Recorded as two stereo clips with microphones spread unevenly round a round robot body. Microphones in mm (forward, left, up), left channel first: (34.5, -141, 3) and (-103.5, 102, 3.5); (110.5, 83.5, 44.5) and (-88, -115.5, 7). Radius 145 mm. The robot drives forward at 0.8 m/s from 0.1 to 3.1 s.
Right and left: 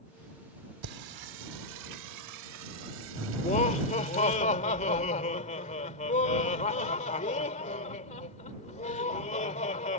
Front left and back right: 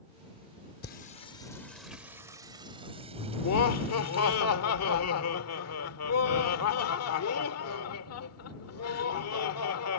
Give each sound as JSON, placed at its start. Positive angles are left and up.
{"t": 0.8, "sound": "singing", "azimuth_deg": 100}
{"t": 3.4, "sound": "laughter", "azimuth_deg": 5}